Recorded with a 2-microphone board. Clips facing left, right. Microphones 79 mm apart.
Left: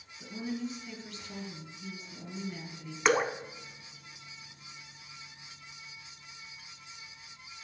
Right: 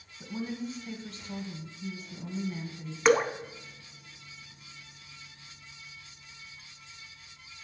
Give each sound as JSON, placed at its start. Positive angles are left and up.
{"t": 0.2, "sound": "a woman speaking", "side_deg": -35, "distance_m": 1.3}
{"t": 3.0, "sound": "dripping", "side_deg": 0, "distance_m": 0.5}